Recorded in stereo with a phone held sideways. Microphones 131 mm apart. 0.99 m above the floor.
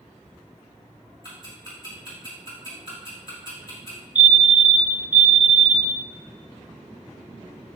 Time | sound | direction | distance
1.2 | ticking | 30° left (ahead or behind) | 4 m
4.2 | a fire alarm | 5° right (ahead or behind) | 1.9 m